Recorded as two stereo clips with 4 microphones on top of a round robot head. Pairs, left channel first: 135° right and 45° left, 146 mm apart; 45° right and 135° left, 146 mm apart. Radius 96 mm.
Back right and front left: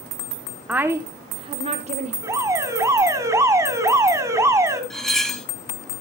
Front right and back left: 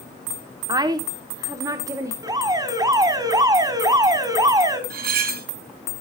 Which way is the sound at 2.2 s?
95° left.